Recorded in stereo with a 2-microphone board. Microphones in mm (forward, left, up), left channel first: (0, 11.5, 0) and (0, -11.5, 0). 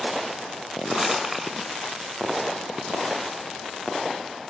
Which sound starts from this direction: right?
Crumpling, at 0.9 s.